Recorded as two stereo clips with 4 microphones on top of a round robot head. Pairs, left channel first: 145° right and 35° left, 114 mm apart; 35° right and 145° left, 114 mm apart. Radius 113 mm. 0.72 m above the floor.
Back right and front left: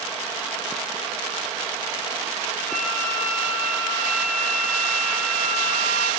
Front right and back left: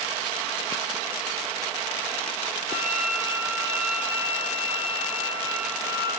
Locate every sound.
2.7 s a flute: 95° left, 7 m